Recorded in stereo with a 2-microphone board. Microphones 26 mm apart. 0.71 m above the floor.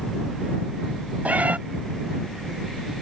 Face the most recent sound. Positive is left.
turn(degrees=-85)